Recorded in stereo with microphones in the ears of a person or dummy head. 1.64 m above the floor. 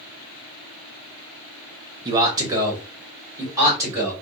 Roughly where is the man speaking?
Centre.